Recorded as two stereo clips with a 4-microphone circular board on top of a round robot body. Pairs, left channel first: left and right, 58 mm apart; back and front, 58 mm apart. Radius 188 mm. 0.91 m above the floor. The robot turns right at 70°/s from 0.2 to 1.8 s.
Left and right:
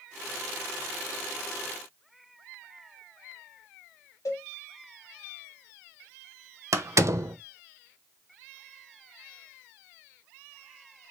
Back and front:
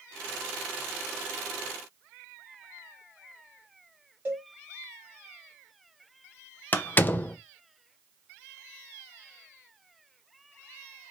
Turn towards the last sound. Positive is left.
turn(degrees=-120)